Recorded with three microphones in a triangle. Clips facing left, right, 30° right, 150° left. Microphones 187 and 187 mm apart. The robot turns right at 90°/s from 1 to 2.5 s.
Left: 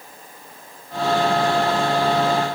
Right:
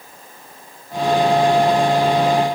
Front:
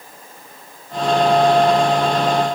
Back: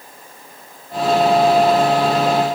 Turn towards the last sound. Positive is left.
No sound to turn to.